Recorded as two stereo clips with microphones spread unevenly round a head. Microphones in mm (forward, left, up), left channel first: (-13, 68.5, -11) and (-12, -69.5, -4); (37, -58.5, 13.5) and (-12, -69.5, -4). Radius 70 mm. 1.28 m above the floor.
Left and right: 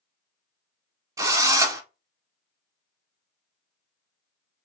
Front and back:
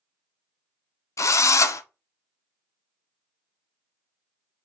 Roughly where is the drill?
Ahead.